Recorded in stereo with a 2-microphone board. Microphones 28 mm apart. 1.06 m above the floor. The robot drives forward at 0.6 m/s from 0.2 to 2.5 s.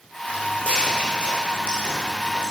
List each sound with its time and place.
0.3 s footsteps: 50° left (ahead or behind), 2.5 m; by 2.5 s 60° left (ahead or behind), 4 m